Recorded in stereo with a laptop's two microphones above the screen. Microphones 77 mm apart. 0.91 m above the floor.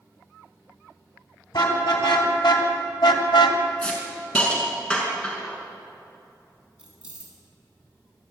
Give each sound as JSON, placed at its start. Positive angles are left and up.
{"t": 1.5, "sound": "a car horn", "side_deg": 70, "distance_m": 3.5}
{"t": 3.8, "sound": "a hiss", "side_deg": 15, "distance_m": 5.5}
{"t": 6.8, "sound": "keys jangling", "side_deg": -15, "distance_m": 6.5}